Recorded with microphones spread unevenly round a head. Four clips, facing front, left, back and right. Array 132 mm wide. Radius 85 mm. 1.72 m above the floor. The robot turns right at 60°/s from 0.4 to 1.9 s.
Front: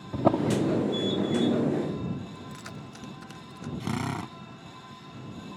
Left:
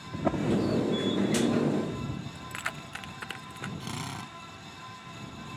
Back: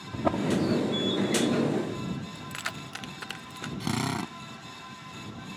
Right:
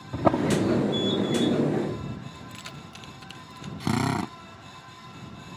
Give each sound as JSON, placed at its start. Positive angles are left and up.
{"t": 0.1, "sound": "a drawer", "azimuth_deg": -40}
{"t": 2.4, "sound": "keys jangling", "azimuth_deg": 125}
{"t": 3.8, "sound": "a drill", "azimuth_deg": -115}